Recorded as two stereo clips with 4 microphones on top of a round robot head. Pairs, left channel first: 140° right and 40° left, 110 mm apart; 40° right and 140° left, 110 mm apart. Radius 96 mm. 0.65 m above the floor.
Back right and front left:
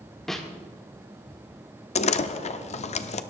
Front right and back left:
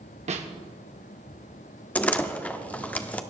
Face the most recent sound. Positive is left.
turn(degrees=-120)